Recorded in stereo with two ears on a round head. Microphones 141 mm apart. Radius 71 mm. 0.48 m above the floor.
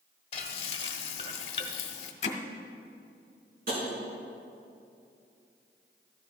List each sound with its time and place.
0.3 s frying: 40° left (ahead or behind), 1.0 m
2.2 s hammering: 45° left (ahead or behind), 1.0 m
3.7 s tapping: 65° right (ahead or behind), 4.5 m